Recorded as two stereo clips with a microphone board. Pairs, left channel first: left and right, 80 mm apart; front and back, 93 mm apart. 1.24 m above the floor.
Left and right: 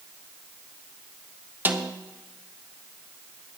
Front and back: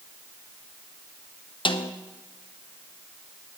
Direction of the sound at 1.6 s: 25° right.